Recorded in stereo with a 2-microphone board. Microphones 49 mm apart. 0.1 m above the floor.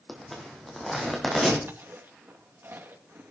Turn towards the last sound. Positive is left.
turn(degrees=-50)  # may be behind; listen again after turning